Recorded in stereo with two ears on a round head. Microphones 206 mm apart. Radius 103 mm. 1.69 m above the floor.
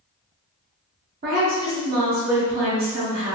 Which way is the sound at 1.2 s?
40° right (ahead or behind).